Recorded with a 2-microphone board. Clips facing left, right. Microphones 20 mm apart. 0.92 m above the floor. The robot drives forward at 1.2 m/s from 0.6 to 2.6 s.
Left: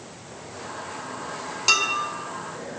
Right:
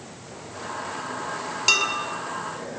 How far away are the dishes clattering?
About 5 m.